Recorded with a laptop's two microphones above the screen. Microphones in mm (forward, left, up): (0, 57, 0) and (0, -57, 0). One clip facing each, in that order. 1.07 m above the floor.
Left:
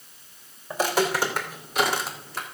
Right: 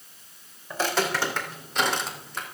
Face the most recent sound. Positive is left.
turn(degrees=0)  # may be behind; listen again after turning